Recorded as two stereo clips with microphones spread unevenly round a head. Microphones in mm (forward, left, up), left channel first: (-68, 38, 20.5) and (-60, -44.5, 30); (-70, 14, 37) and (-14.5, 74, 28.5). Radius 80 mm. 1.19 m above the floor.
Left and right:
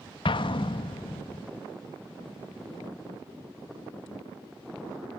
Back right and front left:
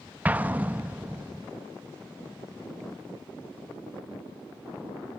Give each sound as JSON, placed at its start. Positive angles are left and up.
{"t": 0.2, "sound": "an explosion", "azimuth_deg": 120, "distance_m": 1.1}